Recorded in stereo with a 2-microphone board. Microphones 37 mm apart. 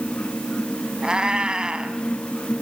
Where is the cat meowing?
25° right (ahead or behind), 2.5 m.